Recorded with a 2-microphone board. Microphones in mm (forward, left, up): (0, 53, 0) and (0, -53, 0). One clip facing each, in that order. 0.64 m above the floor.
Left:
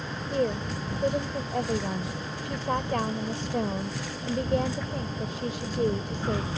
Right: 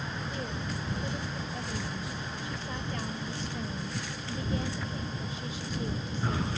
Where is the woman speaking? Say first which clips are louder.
Left 9 dB; 65° left (ahead or behind).